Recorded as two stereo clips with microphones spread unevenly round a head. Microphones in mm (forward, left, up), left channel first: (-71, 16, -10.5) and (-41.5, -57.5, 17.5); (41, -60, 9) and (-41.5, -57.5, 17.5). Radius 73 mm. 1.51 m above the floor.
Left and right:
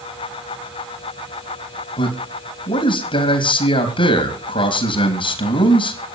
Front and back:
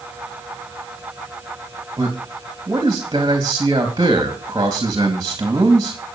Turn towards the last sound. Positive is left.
turn(degrees=110)